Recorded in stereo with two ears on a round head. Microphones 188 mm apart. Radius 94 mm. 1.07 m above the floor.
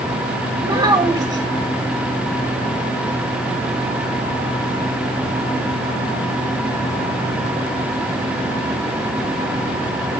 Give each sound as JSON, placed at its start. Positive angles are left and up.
{"t": 0.6, "sound": "a child speaking", "side_deg": -20, "distance_m": 2.5}